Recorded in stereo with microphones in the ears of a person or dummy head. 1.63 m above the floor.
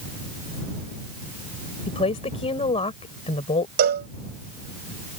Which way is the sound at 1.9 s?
25° left (ahead or behind).